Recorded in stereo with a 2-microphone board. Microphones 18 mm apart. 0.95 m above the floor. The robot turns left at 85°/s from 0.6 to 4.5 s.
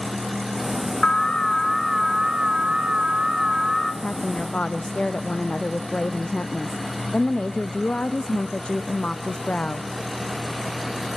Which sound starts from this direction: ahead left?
An alarm, at 1.0 s.